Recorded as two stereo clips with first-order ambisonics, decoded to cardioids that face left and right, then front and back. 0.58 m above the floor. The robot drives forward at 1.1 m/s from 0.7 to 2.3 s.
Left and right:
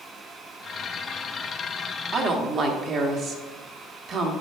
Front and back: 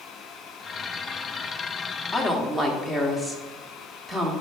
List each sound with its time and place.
2.1 s a woman speaking: 80° right, 1.1 m; by 4.3 s 100° right, 1.1 m